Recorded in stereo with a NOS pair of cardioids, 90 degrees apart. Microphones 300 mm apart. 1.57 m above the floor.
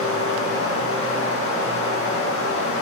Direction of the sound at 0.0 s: 45° left.